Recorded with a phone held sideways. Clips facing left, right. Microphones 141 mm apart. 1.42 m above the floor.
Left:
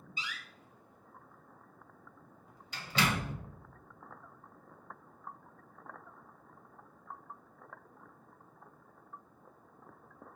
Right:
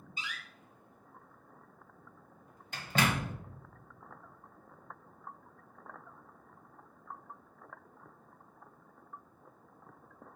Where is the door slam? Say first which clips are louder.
Even; 45° right (ahead or behind), 0.7 m.